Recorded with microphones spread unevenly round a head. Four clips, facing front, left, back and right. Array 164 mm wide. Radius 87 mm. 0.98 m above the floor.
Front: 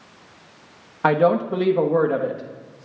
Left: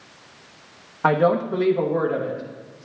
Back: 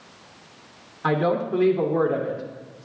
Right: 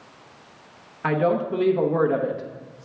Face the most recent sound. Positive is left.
turn(degrees=-40)